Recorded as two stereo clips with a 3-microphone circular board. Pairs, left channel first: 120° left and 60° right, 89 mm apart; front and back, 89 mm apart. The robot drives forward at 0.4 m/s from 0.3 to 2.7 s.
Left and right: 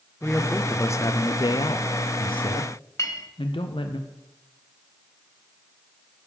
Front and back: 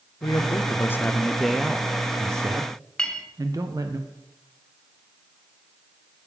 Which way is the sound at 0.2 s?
45° left.